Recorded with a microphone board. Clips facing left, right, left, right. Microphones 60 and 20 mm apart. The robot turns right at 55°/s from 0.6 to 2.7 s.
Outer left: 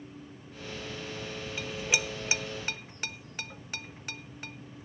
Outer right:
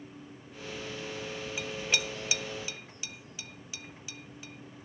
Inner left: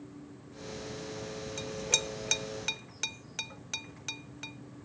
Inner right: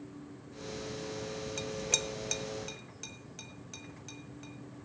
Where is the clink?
10° right (ahead or behind), 0.7 m; by 4.5 s 55° left (ahead or behind), 0.7 m.